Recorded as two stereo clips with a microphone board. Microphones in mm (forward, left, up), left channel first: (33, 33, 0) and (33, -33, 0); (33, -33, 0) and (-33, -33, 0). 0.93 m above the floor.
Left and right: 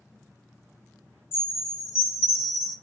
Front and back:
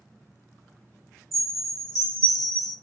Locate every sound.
1.3 s a chime: 35° left, 1.1 m